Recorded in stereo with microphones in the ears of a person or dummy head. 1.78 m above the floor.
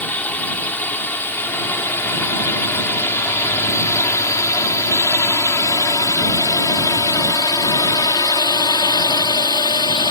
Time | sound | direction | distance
0.0 | a drone | 5° left (ahead or behind) | ?